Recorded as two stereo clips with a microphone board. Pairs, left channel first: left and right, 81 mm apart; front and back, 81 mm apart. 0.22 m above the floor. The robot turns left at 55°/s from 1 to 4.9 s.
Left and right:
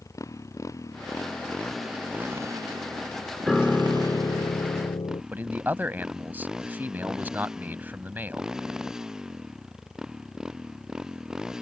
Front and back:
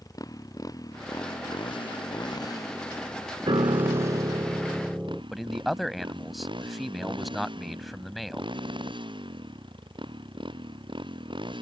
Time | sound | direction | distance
0.0 | a motorcycle | 40° left | ?
3.5 | a piano | straight behind | ?
5.3 | a man speaking | 90° right | ?